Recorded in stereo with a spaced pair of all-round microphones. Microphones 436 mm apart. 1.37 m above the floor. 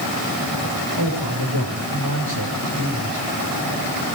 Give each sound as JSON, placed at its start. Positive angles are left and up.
{"t": 1.0, "sound": "a man speaking", "side_deg": -65, "distance_m": 6.0}